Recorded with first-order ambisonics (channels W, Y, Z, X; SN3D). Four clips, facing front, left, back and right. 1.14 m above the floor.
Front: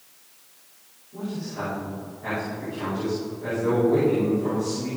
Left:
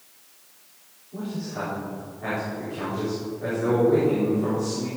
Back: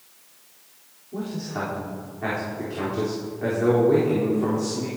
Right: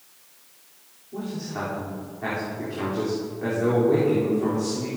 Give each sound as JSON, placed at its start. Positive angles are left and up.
{"t": 1.1, "sound": "a man speaking", "azimuth_deg": -150, "distance_m": 4.0}